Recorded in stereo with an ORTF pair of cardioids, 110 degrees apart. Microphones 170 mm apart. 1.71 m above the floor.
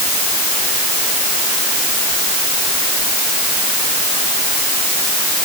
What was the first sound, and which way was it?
Only background noise.